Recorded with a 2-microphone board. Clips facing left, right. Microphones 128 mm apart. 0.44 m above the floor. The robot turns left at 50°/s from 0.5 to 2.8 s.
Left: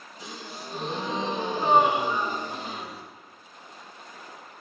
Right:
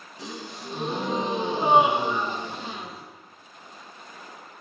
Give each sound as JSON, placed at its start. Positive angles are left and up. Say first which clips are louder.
{"t": 0.2, "sound": "a gasp", "louder": "right 3 dB", "azimuth_deg": -105, "distance_m": 2.0}